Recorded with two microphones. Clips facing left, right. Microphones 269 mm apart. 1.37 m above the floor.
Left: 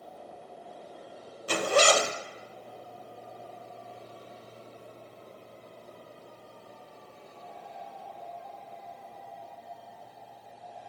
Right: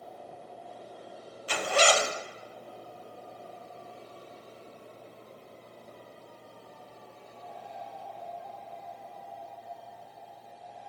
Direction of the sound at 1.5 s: 50° left (ahead or behind).